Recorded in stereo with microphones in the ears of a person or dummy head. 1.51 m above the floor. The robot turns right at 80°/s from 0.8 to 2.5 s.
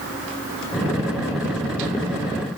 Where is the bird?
No bird in this recording.